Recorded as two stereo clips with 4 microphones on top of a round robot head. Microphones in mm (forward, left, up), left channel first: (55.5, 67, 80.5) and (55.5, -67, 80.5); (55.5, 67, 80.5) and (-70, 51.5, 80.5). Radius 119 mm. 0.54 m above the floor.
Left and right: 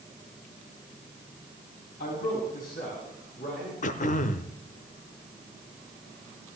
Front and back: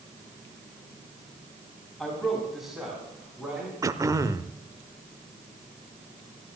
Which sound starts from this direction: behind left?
Throat clearing, at 3.8 s.